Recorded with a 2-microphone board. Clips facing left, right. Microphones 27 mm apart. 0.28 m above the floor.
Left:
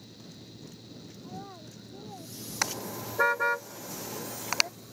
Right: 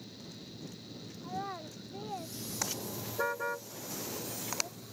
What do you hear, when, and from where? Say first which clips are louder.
1.2 s a child speaking: right 6 dB; 80° right
2.6 s a car horn: left 7 dB; 60° left (ahead or behind)